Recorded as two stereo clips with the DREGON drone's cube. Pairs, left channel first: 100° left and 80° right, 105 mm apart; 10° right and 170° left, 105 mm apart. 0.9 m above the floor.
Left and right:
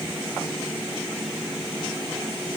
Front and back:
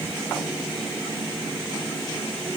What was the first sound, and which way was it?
Only background noise.